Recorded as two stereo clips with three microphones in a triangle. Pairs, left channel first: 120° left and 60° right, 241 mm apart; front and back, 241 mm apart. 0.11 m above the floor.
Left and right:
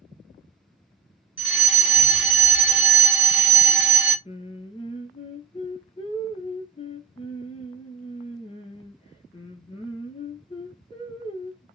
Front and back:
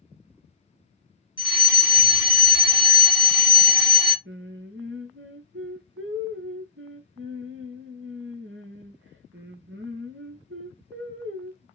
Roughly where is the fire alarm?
Ahead.